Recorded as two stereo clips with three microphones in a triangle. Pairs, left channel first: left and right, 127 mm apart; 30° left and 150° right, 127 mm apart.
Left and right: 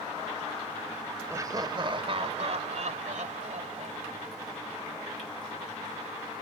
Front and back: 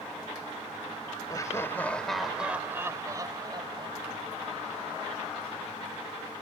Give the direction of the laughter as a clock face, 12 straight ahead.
1 o'clock.